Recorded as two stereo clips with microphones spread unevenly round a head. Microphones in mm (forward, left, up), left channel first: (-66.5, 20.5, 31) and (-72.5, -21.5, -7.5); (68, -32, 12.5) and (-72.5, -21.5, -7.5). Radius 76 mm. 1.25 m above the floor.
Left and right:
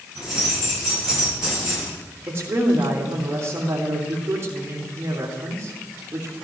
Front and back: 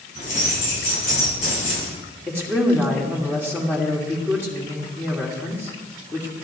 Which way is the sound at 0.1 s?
45° left.